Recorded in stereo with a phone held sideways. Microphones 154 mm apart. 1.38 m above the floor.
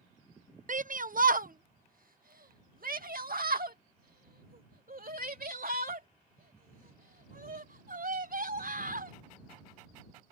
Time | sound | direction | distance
0.7 | a shout | 60° right (ahead or behind) | ?